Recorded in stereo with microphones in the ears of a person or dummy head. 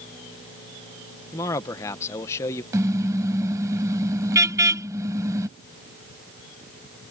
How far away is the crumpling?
I don't hear crumpling.